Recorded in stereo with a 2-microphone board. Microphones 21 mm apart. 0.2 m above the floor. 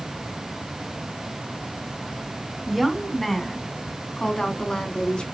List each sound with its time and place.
2.7 s a woman speaking: centre (ahead or behind), 2 m; by 5.2 s 45° left (ahead or behind), 2 m